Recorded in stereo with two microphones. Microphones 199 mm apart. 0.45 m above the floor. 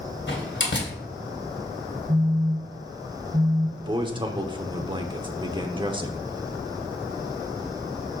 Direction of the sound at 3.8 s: 25° right (ahead or behind).